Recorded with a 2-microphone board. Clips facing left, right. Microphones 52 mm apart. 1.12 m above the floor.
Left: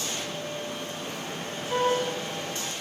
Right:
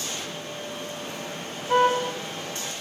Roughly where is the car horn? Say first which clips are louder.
Right 5 dB; right.